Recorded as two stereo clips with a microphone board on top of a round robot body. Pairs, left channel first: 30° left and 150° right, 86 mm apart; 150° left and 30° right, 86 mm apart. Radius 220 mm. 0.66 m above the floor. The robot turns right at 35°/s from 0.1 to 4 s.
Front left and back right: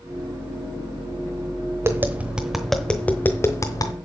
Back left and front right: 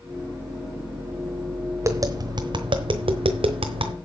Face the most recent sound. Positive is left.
turn(degrees=-10)